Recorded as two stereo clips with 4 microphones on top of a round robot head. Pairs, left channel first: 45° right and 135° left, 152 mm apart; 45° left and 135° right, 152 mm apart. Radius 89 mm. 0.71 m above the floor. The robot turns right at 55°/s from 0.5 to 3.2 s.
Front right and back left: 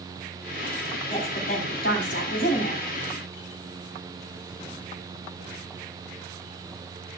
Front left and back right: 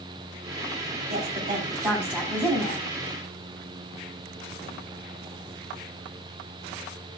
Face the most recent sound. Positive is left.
turn(degrees=15)